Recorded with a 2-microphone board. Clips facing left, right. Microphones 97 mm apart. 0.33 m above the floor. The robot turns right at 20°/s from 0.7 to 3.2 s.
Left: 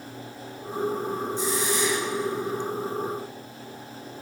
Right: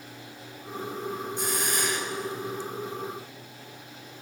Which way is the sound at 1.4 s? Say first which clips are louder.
Left 5 dB; 60° right (ahead or behind).